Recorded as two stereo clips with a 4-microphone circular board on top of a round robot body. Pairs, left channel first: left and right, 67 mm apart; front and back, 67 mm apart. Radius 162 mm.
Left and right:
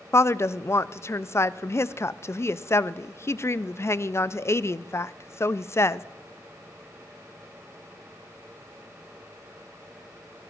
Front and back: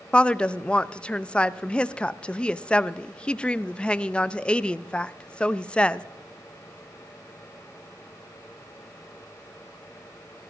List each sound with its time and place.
0.1 s a woman speaking: 70° left, 0.5 m